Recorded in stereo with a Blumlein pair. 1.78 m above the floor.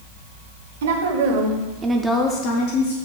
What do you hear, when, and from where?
0.8 s a woman speaking: 65° right, 1.3 m; by 3.0 s 60° left, 1.0 m